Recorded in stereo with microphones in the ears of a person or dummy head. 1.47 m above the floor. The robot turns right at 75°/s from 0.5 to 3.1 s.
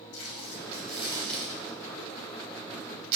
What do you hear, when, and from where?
0.1 s tape being pulled: 65° left (ahead or behind), 0.7 m; by 3.1 s 50° right (ahead or behind), 0.7 m